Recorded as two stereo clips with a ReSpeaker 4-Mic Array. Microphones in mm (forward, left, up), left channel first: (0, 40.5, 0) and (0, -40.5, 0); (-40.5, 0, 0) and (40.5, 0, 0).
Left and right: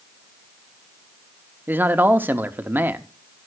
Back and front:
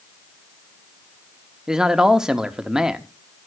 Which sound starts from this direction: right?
A man speaking, at 1.7 s.